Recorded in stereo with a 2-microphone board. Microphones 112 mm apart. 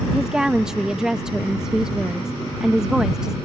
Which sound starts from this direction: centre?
A woman speaking, at 0.1 s.